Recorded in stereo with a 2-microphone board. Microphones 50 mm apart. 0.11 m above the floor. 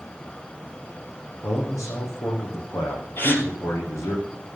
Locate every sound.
1.4 s a man speaking: 75° left (ahead or behind), 6 m
3.2 s a gasp: 45° left (ahead or behind), 2 m